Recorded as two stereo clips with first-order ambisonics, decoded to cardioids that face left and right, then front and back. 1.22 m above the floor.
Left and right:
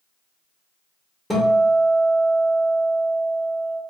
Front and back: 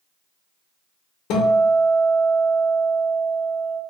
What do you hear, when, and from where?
1.3 s a guitar: 5° left, 0.7 m